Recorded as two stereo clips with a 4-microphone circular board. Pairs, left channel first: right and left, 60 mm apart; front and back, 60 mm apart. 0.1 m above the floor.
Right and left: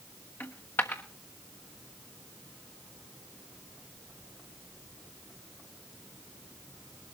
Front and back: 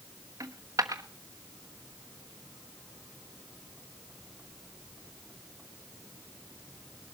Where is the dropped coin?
150° right, 1.2 m.